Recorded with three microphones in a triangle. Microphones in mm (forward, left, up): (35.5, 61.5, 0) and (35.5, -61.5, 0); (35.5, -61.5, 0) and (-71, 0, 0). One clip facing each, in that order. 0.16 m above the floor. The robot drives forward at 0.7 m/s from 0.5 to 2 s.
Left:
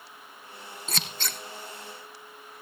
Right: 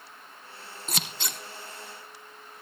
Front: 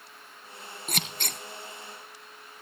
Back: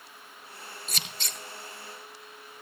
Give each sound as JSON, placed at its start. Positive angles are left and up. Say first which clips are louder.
{"t": 0.9, "sound": "scissors", "louder": "even, front 8 dB", "azimuth_deg": -15, "distance_m": 1.7}